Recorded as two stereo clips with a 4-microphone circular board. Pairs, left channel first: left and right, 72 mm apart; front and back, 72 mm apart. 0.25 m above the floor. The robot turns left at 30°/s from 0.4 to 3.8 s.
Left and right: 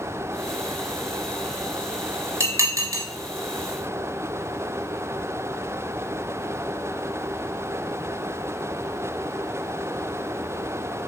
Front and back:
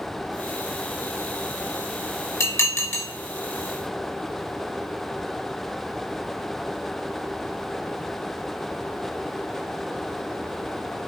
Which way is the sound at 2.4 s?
40° right.